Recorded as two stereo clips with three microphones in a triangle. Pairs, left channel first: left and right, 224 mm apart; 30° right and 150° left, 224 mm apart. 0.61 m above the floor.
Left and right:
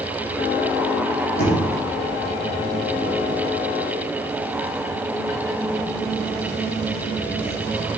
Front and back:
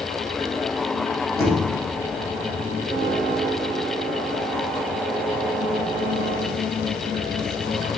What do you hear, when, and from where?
1.4 s knocking: 45° left, 2.5 m